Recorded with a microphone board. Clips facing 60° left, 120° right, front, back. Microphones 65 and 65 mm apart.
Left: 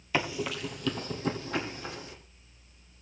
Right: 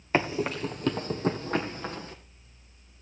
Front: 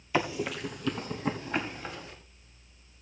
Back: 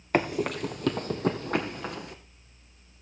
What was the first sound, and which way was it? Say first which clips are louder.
Running footsteps: right 4 dB, back 3 dB; 160° right.